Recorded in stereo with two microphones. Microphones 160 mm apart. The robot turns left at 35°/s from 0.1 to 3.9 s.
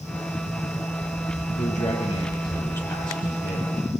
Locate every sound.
1.6 s a man speaking: 60° left, 7.5 m; by 3.7 s 15° right, 7.5 m